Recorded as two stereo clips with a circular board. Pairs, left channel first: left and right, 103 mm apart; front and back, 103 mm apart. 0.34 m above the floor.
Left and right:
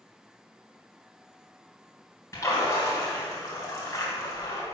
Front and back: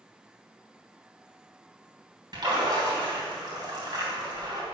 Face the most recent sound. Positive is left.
turn(degrees=145)